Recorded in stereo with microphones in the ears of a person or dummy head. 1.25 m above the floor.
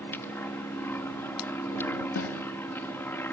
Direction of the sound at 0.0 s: 10° left (ahead or behind).